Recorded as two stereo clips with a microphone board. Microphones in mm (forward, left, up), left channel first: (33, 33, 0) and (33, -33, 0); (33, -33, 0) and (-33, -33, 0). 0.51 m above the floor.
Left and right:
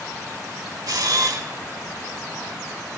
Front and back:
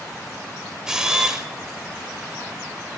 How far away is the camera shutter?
About 1.1 m.